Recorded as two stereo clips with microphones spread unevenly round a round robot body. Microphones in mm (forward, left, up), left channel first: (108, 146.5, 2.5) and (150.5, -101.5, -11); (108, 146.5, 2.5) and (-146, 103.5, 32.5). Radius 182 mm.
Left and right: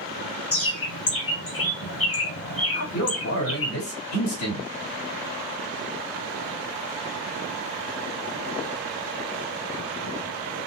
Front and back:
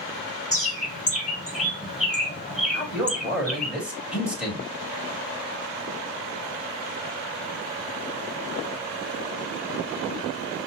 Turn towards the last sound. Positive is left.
turn(degrees=100)